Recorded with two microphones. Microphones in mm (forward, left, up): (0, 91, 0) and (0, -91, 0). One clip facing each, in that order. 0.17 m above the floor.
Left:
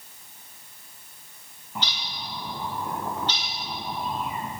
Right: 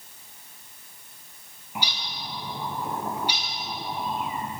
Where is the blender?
I don't hear a blender.